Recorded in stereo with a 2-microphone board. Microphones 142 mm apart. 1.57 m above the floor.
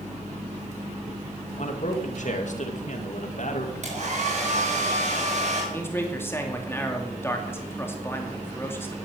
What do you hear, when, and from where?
1.6 s a man speaking: 60° left (ahead or behind), 2.5 m
3.8 s a hair dryer: 55° right (ahead or behind), 8.5 m
5.7 s a man speaking: 15° left (ahead or behind), 2.5 m